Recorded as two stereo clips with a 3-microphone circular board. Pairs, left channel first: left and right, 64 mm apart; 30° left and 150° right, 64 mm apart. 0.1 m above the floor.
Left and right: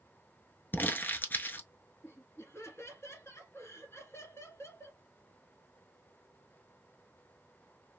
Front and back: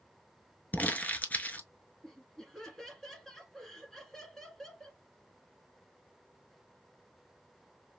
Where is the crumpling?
70° left, 0.8 m.